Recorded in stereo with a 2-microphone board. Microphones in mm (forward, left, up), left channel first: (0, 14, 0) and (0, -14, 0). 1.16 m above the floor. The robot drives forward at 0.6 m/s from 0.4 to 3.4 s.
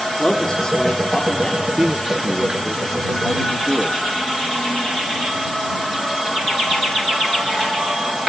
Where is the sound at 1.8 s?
15° right (ahead or behind), 0.6 m; by 4.0 s 5° right (ahead or behind), 1.6 m.